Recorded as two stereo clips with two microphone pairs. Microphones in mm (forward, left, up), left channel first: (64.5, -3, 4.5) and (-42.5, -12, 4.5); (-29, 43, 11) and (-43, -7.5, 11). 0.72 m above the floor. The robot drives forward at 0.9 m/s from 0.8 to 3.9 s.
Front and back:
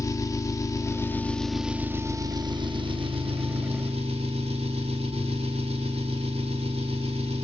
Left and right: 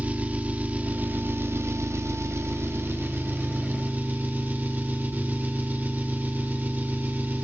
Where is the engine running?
50° right, 1.3 m; by 7.5 s 155° right, 2.5 m.